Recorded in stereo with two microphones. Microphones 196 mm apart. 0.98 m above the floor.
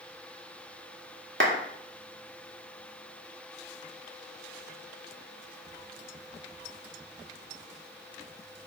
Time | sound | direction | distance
1.4 | a clap | 75° right (ahead or behind) | 2.0 m